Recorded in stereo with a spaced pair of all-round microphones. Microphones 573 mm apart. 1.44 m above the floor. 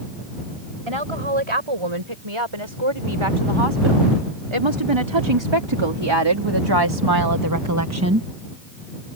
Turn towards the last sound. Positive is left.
turn(degrees=-20)  # may be behind; listen again after turning